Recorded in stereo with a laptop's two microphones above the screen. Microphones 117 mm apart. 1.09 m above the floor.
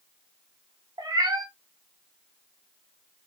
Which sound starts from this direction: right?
A cat meowing, at 1.0 s.